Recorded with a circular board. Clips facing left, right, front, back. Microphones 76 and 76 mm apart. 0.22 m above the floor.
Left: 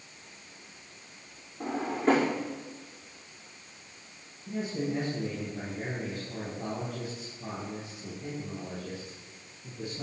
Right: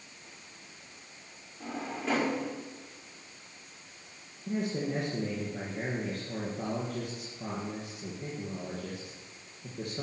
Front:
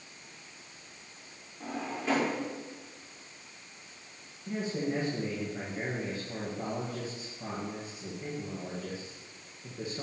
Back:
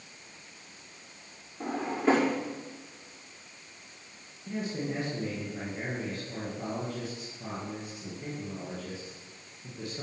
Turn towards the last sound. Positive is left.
turn(degrees=-80)